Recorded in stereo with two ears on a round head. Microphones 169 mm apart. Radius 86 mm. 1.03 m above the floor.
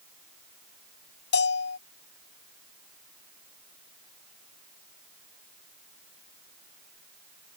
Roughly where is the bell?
Left.